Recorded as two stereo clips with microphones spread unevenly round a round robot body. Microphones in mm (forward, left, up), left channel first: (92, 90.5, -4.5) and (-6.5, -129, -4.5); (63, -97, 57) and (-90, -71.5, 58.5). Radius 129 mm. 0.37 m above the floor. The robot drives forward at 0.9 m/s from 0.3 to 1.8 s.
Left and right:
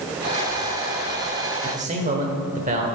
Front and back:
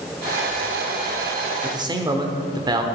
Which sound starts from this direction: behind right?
A man speaking, at 1.6 s.